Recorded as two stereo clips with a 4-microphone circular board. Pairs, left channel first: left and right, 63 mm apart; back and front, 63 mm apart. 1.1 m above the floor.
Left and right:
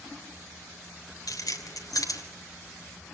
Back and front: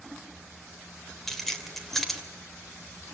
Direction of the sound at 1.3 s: 95° left.